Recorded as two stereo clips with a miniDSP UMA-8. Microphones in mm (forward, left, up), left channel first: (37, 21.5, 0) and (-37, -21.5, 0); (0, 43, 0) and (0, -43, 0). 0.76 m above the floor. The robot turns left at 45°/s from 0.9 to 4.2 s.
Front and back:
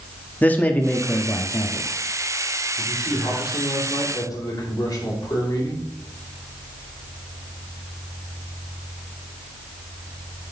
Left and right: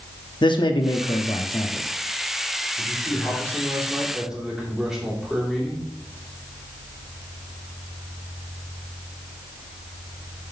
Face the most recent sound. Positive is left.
turn(degrees=-5)